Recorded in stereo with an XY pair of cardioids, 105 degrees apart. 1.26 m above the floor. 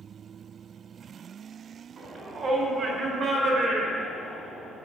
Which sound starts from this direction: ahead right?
A shout, at 2.0 s.